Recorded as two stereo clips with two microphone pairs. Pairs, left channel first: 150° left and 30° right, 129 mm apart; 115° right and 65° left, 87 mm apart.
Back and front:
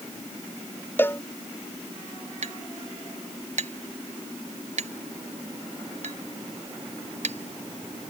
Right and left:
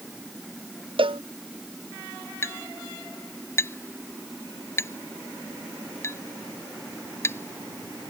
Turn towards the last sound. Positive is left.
turn(degrees=-55)